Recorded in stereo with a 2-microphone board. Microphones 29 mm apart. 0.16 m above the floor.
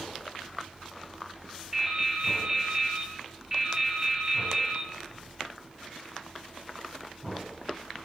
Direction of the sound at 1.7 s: 15° right (ahead or behind).